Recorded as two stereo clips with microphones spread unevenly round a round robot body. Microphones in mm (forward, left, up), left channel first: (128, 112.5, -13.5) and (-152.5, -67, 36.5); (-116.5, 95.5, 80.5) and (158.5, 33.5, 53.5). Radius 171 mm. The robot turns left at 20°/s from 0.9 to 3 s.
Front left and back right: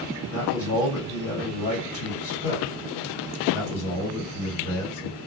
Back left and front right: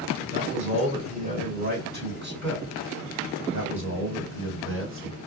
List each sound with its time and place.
0.3 s a man speaking: 40° left, 1.7 m; by 5.2 s straight ahead, 1.7 m